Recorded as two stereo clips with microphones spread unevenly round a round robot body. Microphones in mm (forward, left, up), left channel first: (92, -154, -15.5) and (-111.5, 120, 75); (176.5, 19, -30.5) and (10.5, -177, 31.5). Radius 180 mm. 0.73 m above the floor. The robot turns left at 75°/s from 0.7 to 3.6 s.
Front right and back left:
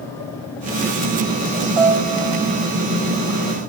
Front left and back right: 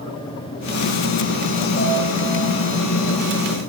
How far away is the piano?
About 1.9 m.